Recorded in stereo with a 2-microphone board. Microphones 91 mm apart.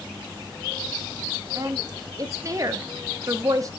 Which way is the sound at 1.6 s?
40° right (ahead or behind).